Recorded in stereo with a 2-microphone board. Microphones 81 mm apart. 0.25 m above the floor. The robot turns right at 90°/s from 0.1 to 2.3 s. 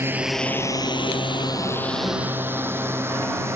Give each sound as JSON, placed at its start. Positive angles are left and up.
{"t": 0.0, "sound": "a drone", "side_deg": -30}